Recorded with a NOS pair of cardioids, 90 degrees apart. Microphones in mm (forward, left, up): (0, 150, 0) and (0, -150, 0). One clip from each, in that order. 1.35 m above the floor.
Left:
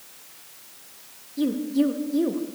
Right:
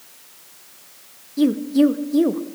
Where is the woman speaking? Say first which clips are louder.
Right 6 dB; 25° right, 0.5 m.